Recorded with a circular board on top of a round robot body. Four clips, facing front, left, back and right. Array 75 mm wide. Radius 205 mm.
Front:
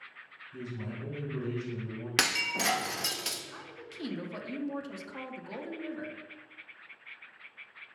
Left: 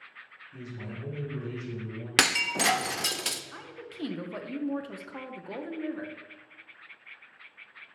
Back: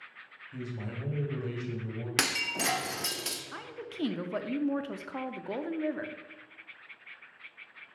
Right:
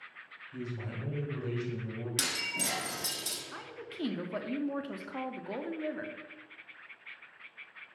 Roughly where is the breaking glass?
Left.